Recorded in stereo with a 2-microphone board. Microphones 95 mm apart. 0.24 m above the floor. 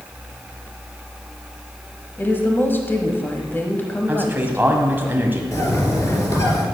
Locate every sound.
2.2 s a woman speaking: 25° left (ahead or behind), 1.1 m
4.1 s a man speaking: 20° right (ahead or behind), 1.9 m
5.5 s a bird: 35° left (ahead or behind), 2.5 m